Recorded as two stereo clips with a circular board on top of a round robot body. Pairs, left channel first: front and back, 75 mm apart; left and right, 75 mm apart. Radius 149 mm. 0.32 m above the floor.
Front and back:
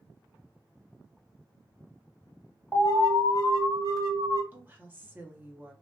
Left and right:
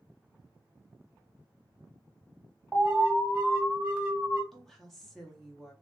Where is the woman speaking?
170° left, 1.2 m.